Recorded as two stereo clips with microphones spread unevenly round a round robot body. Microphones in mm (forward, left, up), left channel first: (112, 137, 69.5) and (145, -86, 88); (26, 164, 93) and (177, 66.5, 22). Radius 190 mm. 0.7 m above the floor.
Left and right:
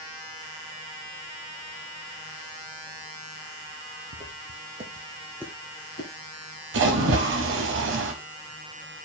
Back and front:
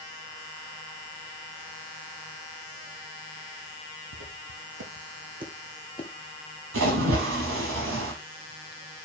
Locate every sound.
4.1 s footsteps: 40° right, 1.4 m; by 6.1 s 140° left, 0.9 m
6.7 s a splash: 80° right, 0.8 m